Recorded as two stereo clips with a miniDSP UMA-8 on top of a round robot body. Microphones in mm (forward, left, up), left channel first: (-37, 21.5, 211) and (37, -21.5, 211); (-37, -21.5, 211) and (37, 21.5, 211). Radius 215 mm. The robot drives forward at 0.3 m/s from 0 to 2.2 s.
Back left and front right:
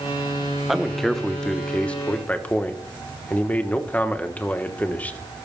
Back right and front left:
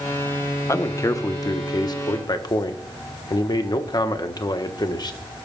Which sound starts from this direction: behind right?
A man speaking, at 0.7 s.